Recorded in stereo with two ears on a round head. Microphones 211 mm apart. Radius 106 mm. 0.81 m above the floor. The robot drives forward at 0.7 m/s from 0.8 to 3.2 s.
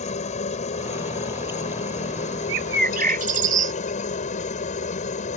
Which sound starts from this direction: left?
A helicopter, at 0.0 s.